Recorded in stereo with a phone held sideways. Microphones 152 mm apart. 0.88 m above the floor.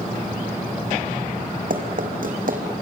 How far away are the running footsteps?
About 3 m.